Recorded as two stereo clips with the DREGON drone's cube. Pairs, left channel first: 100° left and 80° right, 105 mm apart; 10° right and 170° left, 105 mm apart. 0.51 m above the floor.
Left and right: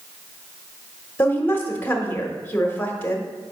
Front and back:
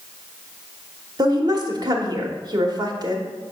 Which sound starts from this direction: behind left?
A woman speaking, at 1.2 s.